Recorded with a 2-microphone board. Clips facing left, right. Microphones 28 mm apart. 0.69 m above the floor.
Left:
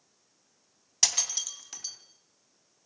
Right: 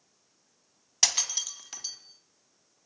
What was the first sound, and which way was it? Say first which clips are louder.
Breaking glass: right 1 dB; 10° right (ahead or behind).